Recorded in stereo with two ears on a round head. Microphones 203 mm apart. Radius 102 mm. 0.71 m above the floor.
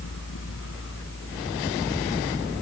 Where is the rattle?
No rattle in this recording.